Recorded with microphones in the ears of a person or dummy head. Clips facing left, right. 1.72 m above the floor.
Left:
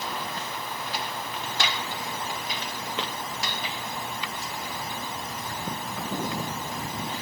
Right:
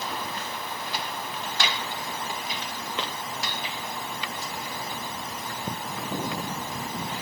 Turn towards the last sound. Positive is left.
No sound to turn to.